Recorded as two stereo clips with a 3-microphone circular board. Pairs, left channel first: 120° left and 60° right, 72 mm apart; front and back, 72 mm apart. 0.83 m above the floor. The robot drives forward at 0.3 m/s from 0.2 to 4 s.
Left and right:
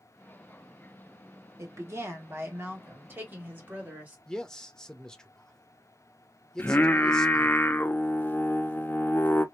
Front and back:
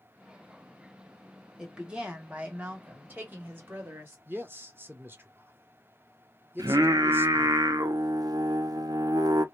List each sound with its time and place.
1.6 s a woman speaking: 100° right, 1.5 m; by 4.2 s 125° right, 1.7 m
4.3 s a man speaking: 165° right, 0.9 m
6.6 s singing: 175° left, 0.5 m